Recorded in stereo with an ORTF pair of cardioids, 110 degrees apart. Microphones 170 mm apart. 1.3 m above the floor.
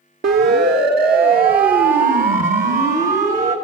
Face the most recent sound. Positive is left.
turn(degrees=-50)